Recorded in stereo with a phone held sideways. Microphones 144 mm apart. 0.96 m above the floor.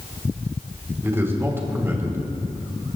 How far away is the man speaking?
About 3.5 m.